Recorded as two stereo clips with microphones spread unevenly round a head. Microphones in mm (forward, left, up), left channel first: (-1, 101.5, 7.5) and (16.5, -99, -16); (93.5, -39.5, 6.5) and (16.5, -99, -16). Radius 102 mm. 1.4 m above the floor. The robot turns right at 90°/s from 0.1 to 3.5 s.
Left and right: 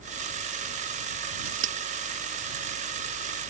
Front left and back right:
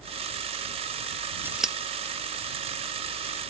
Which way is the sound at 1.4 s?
75° right.